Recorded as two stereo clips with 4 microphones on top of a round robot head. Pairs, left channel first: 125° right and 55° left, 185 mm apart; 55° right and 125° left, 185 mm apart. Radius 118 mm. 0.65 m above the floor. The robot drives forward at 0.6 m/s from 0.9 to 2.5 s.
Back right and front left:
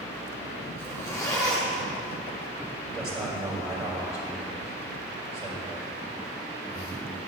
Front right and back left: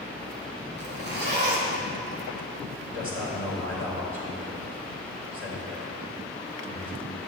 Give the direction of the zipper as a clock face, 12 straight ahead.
7 o'clock.